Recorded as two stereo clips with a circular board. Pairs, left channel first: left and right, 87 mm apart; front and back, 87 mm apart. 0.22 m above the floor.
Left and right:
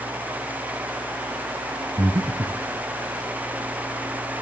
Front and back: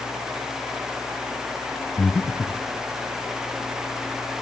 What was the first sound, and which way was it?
Breathing, 60° right.